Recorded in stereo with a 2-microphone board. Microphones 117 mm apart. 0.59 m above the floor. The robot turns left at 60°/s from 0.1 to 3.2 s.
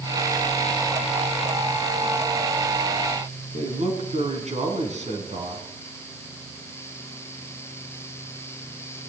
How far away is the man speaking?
About 4.5 m.